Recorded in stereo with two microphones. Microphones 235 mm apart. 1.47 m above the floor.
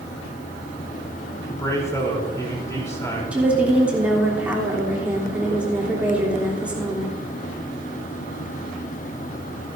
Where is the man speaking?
10° left (ahead or behind), 3.5 m.